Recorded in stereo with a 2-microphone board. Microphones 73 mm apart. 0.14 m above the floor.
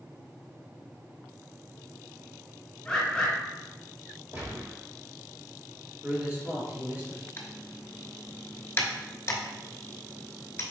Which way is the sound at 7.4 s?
35° left (ahead or behind).